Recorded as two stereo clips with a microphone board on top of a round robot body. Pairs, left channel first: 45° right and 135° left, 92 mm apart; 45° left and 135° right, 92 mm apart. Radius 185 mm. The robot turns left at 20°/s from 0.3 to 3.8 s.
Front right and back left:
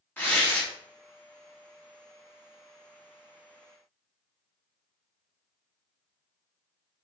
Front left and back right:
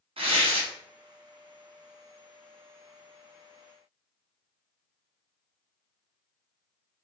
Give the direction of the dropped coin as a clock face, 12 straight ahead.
No dropped coin in this recording.